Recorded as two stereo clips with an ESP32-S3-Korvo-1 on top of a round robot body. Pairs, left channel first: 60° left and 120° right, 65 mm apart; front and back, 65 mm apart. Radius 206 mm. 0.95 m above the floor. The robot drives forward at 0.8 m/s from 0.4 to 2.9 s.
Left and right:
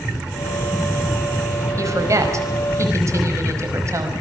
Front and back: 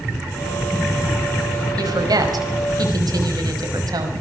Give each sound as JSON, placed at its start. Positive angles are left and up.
{"t": 1.8, "sound": "a woman speaking", "azimuth_deg": -160, "distance_m": 5.0}